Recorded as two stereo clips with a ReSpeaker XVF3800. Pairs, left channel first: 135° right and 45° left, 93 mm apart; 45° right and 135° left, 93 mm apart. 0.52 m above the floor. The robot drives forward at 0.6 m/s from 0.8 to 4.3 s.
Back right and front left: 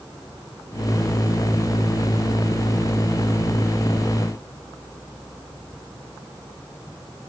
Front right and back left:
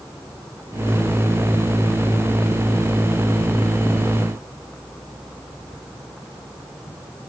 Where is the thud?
I don't hear a thud.